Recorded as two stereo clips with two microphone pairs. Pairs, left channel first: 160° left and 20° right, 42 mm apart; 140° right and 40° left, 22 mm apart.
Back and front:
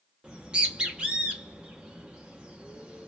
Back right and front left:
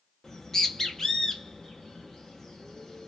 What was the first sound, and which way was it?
A bird, 85° right.